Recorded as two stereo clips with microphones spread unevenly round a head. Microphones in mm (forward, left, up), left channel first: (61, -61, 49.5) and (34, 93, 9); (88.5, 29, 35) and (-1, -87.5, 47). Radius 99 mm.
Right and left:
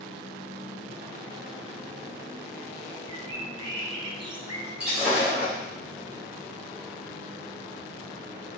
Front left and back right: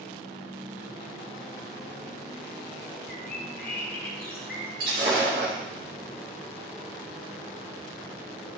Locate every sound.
3.1 s a bird: 35° left, 1.7 m
4.8 s breaking glass: 170° right, 3 m